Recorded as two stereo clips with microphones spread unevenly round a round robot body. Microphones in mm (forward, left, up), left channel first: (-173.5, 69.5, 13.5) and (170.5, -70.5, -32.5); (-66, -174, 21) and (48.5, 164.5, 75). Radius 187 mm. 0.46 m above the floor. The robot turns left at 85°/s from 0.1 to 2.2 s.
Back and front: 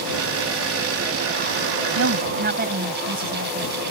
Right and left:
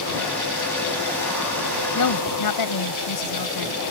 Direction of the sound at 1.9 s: 65° right.